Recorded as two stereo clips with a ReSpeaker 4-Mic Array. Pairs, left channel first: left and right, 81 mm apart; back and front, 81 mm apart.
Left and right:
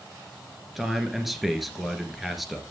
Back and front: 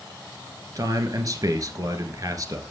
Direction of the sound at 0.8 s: Straight ahead.